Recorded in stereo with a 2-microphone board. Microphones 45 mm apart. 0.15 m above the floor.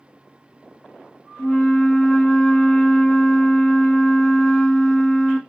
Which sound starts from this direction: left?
A flute, at 1.4 s.